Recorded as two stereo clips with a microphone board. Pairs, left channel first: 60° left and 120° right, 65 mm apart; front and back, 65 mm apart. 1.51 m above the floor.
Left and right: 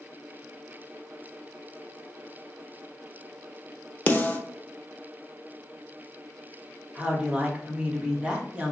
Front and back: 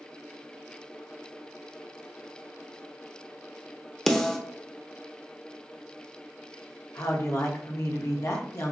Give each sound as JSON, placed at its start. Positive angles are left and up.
{"t": 4.1, "sound": "a snare drum", "azimuth_deg": 65, "distance_m": 0.7}
{"t": 7.0, "sound": "a woman speaking", "azimuth_deg": -45, "distance_m": 1.2}